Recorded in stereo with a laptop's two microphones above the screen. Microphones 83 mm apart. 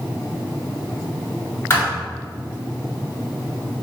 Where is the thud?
30° left (ahead or behind), 2.5 m.